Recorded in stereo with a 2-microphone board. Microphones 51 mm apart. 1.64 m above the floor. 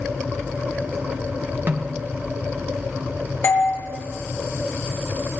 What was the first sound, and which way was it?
A snare drum, 40° right (ahead or behind).